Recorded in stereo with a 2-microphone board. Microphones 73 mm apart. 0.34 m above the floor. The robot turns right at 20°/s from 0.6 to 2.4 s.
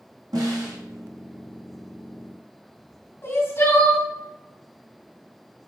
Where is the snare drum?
60° right (ahead or behind), 3 m; by 0.8 s 65° right (ahead or behind), 3 m.